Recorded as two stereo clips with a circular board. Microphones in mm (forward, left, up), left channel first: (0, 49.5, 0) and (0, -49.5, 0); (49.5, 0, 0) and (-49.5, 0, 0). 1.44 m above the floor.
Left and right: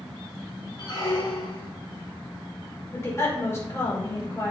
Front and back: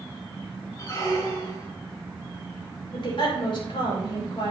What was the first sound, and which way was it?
A squeak, 50° left.